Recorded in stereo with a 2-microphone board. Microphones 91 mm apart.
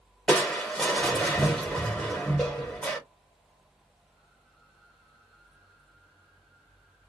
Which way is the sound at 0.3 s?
10° left (ahead or behind).